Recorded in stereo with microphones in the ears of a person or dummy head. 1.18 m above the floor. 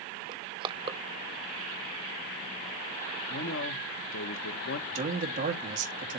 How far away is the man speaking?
About 2 m.